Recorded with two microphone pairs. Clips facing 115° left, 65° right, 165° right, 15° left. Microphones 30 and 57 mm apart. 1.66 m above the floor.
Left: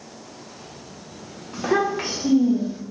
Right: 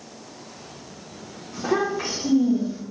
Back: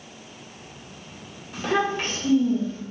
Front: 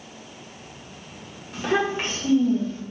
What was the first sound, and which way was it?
A child speaking, 105° left.